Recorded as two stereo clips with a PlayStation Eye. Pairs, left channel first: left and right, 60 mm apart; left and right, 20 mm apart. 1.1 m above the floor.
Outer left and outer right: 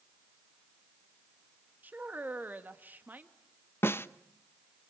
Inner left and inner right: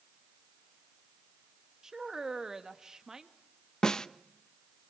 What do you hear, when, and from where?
1.8 s a woman speaking: 30° right (ahead or behind), 1.9 m
3.8 s a snare drum: 40° left (ahead or behind), 0.8 m